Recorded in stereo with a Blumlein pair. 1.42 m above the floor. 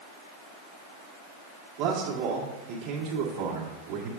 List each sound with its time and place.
1.8 s a man speaking: 40° right, 1.9 m